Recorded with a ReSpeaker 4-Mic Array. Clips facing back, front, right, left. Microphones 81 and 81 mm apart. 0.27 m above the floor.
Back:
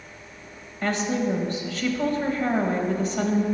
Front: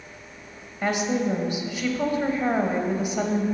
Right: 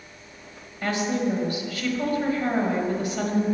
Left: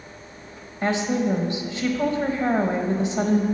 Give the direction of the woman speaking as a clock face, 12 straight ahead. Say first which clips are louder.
Front 1 dB, left 2 dB; 10 o'clock.